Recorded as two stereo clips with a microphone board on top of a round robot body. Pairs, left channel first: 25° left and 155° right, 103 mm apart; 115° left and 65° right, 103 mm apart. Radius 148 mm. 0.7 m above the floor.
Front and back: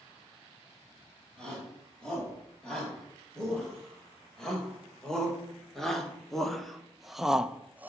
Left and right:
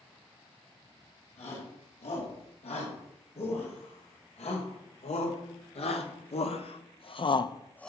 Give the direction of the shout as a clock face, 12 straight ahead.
8 o'clock.